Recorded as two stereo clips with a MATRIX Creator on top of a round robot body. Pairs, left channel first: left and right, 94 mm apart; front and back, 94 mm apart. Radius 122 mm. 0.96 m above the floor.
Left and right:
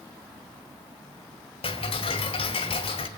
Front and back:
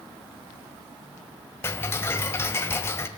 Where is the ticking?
65° left, 2.5 m.